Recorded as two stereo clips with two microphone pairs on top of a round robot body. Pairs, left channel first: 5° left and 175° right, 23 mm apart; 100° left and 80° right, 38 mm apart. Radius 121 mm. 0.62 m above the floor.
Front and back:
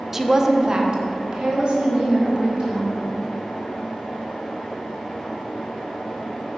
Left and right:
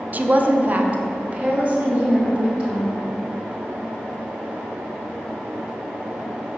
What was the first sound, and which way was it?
A woman speaking, 110° right.